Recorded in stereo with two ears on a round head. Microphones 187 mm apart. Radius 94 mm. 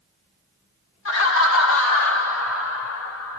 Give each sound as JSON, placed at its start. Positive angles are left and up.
{"t": 1.1, "sound": "laughter", "side_deg": 70, "distance_m": 2.0}